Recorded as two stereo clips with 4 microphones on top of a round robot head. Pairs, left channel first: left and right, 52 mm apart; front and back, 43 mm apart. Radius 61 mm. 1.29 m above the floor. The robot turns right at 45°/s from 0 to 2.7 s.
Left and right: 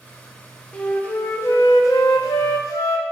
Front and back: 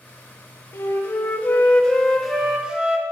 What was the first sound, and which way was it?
A flute, 20° left.